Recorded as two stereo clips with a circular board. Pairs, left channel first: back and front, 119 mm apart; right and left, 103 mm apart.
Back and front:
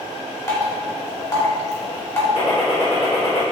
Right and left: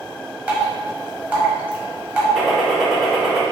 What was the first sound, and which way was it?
Dripping, 150° left.